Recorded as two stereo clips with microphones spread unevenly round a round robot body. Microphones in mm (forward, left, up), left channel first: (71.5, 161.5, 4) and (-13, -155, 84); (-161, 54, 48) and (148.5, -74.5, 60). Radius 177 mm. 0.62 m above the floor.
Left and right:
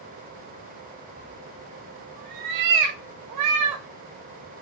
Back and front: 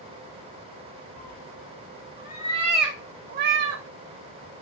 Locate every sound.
1.2 s a cat meowing: 165° right, 1.0 m; by 3.8 s 70° right, 0.8 m